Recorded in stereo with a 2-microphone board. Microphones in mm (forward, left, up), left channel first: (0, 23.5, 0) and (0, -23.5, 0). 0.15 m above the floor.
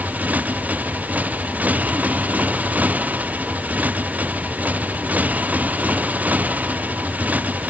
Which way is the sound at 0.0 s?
30° right (ahead or behind).